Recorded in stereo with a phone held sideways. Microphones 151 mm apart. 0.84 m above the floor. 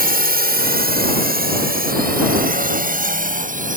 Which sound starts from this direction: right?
A drone, at 0.0 s.